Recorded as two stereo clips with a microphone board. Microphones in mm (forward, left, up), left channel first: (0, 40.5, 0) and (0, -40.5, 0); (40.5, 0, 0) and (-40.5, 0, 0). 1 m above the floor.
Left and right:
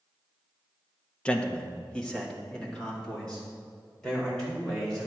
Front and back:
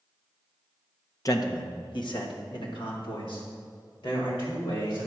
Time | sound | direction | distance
1.2 | a man speaking | 20° left | 1.0 m